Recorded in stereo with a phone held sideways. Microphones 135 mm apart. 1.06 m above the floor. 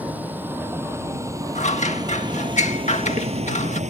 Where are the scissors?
60° left (ahead or behind).